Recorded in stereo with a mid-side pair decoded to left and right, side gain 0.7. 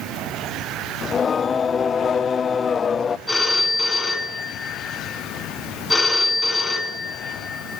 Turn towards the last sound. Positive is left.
turn(degrees=5)